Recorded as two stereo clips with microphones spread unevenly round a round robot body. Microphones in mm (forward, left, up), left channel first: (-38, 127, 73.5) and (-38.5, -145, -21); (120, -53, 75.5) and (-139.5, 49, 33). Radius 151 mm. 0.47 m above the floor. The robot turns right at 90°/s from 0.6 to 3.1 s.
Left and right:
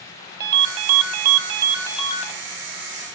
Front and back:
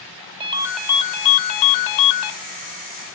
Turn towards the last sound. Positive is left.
turn(degrees=95)